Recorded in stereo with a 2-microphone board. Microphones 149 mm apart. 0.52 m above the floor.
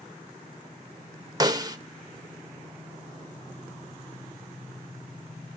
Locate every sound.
1.4 s a snare drum: 25° right (ahead or behind), 0.8 m